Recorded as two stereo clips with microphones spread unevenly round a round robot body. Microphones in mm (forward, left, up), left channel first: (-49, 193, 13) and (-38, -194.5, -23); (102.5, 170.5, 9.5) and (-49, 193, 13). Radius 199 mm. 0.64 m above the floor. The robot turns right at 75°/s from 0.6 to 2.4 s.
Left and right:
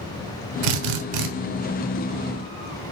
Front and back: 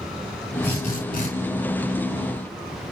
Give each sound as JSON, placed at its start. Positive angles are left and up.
{"t": 0.6, "sound": "a drill", "azimuth_deg": -95, "distance_m": 1.3}